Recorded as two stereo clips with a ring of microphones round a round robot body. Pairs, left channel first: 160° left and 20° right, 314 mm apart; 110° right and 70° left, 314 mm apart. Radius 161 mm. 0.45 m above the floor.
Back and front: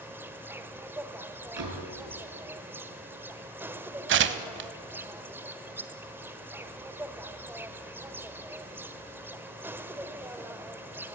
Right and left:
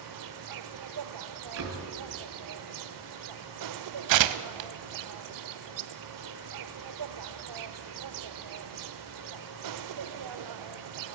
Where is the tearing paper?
35° left, 1.0 m.